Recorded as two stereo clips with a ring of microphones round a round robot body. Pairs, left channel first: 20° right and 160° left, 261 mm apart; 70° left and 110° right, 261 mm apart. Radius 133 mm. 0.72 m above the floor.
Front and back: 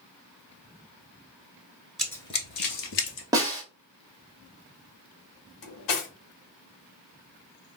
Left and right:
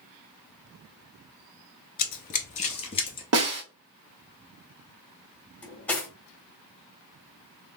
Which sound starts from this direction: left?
Running footsteps, at 2.0 s.